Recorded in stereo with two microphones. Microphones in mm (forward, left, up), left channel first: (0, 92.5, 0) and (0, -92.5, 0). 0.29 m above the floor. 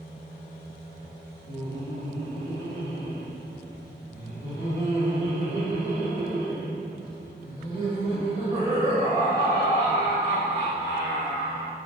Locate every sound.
1.5 s laughter: 20° right (ahead or behind), 2.0 m